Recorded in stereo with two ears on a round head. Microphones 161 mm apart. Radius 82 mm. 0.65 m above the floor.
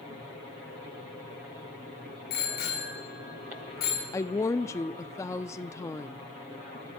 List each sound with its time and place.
2.3 s a bicycle bell: 55° left (ahead or behind), 7 m
4.1 s a woman speaking: 15° left (ahead or behind), 0.5 m